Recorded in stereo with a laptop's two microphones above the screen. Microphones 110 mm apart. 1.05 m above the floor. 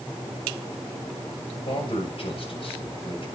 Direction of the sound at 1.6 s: 55° left (ahead or behind).